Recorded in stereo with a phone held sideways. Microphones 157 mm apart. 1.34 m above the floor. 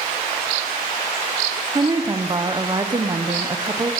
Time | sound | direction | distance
1.8 | a woman speaking | 25° right (ahead or behind) | 0.7 m